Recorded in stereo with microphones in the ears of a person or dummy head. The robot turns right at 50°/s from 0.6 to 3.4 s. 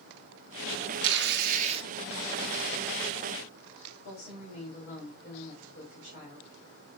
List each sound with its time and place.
1.0 s tearing paper: 75° right, 0.9 m; by 1.9 s 35° right, 0.9 m
4.0 s a woman speaking: 40° left (ahead or behind), 3.5 m